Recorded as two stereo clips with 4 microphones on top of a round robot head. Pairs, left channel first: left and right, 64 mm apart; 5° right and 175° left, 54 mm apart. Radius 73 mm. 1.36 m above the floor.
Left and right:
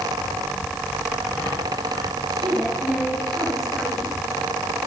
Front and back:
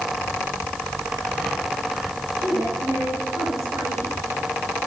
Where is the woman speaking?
170° right, 8 m; by 4.1 s straight behind, 9 m.